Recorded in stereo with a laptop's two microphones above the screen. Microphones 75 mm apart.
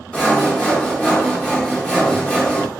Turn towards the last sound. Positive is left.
turn(degrees=15)  # may be behind; listen again after turning